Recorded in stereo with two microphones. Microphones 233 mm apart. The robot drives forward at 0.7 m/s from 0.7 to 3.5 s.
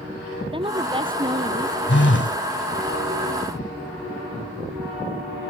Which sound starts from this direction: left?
A phone buzzing, at 1.9 s.